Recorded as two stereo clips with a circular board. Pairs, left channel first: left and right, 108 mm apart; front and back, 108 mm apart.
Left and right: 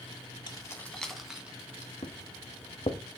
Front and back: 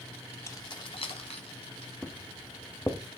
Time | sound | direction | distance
0.5 | keys jangling | 55° left | 1.0 m
2.0 | footsteps | 70° left | 1.5 m